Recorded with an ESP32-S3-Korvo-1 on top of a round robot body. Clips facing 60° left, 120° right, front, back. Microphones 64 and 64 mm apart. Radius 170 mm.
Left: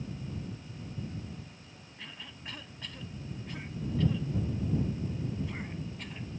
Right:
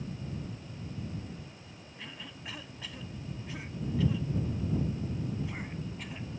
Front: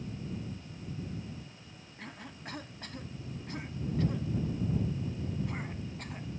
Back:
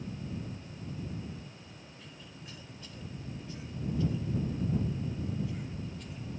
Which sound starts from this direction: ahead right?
A cough, at 2.0 s.